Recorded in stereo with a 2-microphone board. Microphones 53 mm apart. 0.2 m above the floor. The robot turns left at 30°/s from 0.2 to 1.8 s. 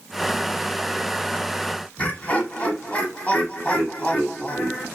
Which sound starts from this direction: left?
Laughter, at 2.0 s.